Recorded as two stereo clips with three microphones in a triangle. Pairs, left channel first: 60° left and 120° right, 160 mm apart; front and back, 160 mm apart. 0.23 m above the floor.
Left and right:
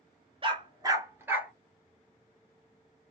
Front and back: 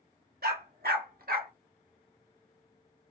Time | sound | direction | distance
0.4 | a dog barking | 170° right | 1.2 m